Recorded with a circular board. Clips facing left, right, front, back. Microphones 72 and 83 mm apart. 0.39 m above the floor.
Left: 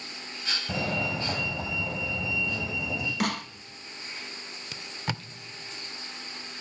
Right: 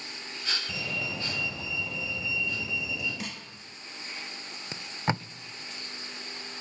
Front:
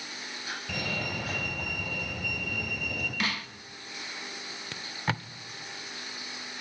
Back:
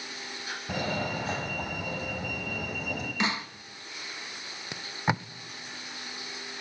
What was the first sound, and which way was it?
A fire alarm, 125° left.